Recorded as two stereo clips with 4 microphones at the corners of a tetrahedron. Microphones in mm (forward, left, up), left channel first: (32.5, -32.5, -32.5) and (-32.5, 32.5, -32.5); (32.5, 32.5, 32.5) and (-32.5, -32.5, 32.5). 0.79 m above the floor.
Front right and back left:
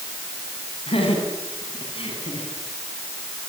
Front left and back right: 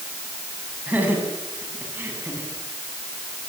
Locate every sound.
0.9 s laughter: 60° right, 8 m; by 2.5 s 65° right, 8 m